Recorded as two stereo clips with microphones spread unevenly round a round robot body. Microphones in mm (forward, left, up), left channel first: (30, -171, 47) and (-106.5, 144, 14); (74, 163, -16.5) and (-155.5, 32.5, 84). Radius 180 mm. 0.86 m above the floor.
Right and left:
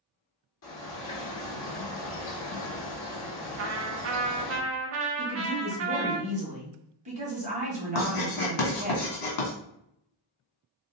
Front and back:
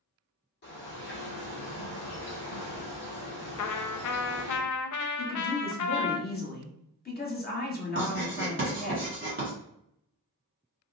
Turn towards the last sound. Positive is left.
turn(degrees=-80)